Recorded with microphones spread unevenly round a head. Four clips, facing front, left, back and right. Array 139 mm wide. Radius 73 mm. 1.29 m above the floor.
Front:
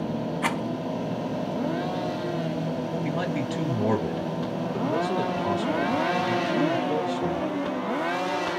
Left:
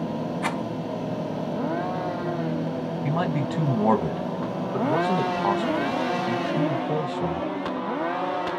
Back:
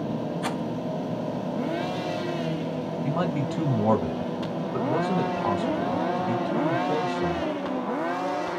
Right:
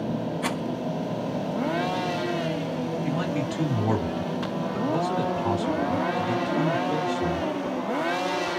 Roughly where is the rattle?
Ahead.